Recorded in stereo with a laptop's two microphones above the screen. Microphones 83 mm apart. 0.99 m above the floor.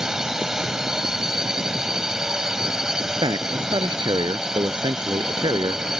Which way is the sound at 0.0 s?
5° right (ahead or behind).